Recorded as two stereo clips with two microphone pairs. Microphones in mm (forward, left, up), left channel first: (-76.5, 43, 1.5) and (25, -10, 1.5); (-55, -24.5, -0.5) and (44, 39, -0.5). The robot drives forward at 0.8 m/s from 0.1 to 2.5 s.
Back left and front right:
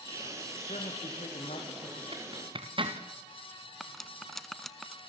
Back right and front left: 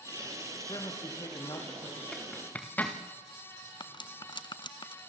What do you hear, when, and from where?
0.7 s a man speaking: 160° left, 6 m
2.1 s a zipper: 65° right, 3.5 m; by 3.0 s 70° right, 3.5 m
3.8 s cutlery clinking: 125° right, 0.8 m